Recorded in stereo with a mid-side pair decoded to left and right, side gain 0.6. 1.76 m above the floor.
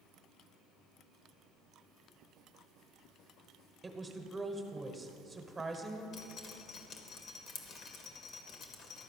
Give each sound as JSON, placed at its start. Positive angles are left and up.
{"t": 3.8, "sound": "a woman speaking", "azimuth_deg": -20, "distance_m": 1.2}
{"t": 6.1, "sound": "dripping", "azimuth_deg": 50, "distance_m": 1.2}